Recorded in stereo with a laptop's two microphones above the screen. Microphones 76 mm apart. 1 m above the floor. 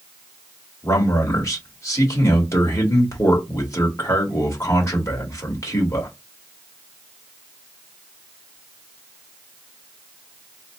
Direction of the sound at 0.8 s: 40° left (ahead or behind).